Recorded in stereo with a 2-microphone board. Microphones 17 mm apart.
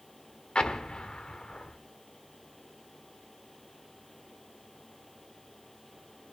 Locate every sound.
0.6 s an explosion: 75° left (ahead or behind), 1.2 m